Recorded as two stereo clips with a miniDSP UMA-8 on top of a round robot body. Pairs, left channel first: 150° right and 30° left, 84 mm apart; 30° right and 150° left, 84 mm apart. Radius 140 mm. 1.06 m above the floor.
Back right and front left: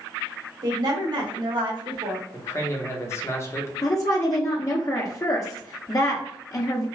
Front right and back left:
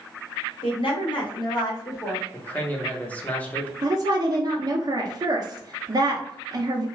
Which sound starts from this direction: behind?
A woman speaking, at 3.8 s.